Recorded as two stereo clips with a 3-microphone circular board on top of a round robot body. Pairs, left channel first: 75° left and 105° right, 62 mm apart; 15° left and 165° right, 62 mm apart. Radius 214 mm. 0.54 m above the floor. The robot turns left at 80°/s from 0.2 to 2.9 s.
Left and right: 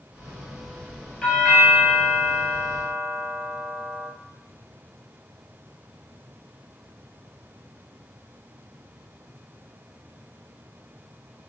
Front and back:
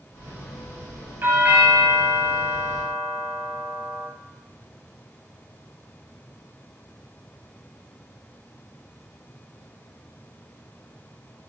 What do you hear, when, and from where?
1.2 s a doorbell: 160° left, 2.5 m; by 4.1 s 25° left, 2.5 m